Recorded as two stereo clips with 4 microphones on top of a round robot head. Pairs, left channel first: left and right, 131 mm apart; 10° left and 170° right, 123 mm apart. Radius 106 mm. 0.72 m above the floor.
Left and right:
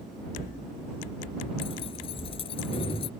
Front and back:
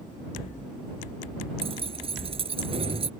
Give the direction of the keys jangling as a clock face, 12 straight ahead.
7 o'clock.